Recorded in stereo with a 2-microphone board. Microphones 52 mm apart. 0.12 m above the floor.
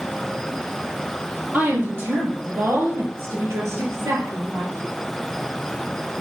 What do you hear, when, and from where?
1.5 s a woman speaking: 40° right (ahead or behind), 4 m; by 4.9 s 65° right (ahead or behind), 3.5 m